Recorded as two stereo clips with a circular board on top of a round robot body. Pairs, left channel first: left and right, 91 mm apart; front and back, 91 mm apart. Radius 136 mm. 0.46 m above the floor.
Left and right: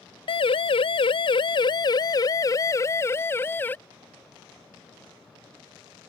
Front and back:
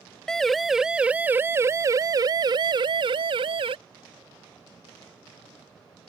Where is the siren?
85° left; by 3.8 s 160° left.